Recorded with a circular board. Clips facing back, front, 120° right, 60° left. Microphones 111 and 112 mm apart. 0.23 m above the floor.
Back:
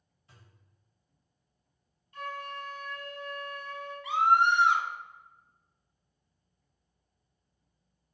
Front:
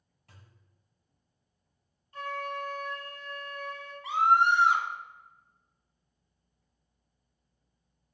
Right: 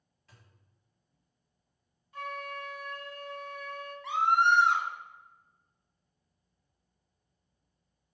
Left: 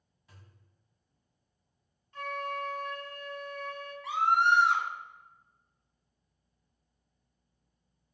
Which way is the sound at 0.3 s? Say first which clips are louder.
Front 1 dB, left 2 dB; 20° right.